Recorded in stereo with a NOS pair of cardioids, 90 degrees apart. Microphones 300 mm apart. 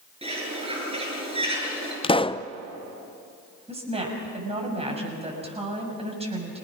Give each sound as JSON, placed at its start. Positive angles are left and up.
{"t": 0.2, "sound": "a bird", "azimuth_deg": -20, "distance_m": 9.0}
{"t": 2.0, "sound": "a pop", "azimuth_deg": 20, "distance_m": 0.6}
{"t": 3.7, "sound": "a woman speaking", "azimuth_deg": -20, "distance_m": 6.5}